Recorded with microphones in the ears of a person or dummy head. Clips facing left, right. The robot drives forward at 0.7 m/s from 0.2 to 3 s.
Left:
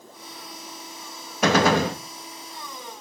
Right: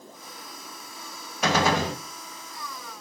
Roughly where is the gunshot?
Left.